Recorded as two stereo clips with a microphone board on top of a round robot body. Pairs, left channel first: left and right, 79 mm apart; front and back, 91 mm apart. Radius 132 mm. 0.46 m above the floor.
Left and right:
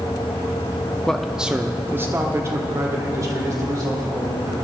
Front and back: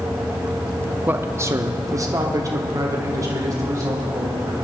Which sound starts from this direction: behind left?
A man speaking, at 1.1 s.